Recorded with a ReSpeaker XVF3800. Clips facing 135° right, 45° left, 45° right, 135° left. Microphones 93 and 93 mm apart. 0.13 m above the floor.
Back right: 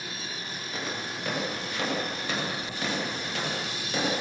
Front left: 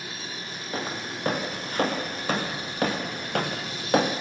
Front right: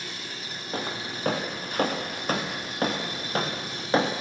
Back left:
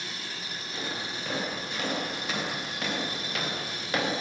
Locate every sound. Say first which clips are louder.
0.7 s footsteps: front left 3 dB, front right 4 dB; 5° right, 5.5 m; by 4.1 s 15° left, 3 m